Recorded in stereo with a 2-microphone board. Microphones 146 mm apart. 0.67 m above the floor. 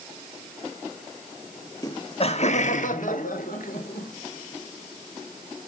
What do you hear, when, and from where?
1.8 s laughter: 25° left (ahead or behind), 0.8 m; by 4.1 s 75° left (ahead or behind), 2 m